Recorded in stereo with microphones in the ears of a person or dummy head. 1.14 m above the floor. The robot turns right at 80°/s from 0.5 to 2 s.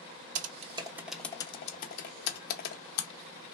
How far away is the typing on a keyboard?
About 0.6 m.